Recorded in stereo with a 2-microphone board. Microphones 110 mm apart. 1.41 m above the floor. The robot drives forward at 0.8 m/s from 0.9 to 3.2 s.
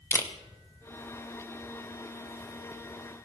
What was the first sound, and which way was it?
A camera shutter, 25° left (ahead or behind).